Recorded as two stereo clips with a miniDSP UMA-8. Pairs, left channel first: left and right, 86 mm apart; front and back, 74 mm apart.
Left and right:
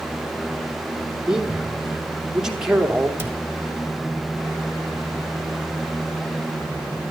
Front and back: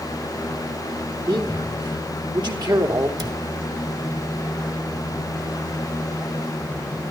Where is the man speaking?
175° right, 2.5 m.